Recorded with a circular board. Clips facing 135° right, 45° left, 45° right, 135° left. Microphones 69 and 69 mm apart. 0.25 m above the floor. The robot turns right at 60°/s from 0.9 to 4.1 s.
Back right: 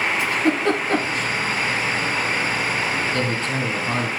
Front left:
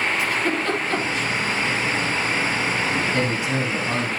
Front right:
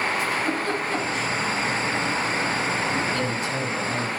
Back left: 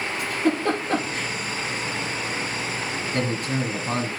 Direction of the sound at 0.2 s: 165° left.